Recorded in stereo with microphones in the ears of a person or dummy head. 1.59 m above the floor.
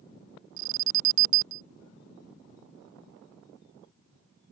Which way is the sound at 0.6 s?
75° right (ahead or behind).